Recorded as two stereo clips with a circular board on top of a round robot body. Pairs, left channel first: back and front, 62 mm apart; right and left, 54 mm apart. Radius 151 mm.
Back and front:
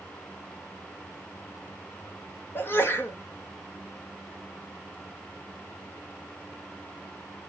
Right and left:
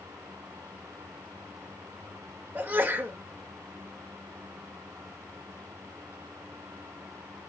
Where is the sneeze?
135° left, 1.6 m.